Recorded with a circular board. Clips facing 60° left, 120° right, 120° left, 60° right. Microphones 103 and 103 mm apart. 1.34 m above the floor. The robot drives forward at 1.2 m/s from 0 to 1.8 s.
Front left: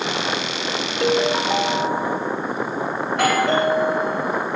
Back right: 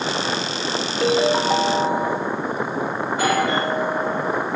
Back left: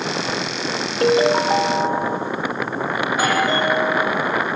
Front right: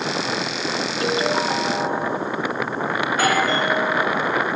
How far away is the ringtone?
About 0.9 m.